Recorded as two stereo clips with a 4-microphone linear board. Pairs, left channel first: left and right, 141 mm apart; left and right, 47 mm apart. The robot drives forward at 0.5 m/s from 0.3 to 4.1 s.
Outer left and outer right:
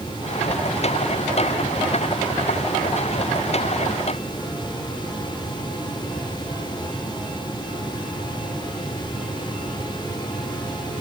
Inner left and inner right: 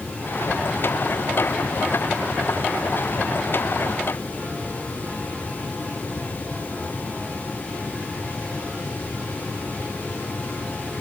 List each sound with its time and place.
Only background noise.